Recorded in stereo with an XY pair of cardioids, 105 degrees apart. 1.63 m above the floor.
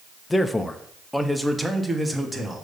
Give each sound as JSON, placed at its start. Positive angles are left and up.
{"t": 0.3, "sound": "a man speaking", "azimuth_deg": 20, "distance_m": 0.7}